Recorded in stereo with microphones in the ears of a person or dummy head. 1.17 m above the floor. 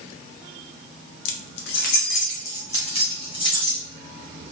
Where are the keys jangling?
65° left (ahead or behind), 0.5 m; by 3.8 s 25° left (ahead or behind), 1.5 m.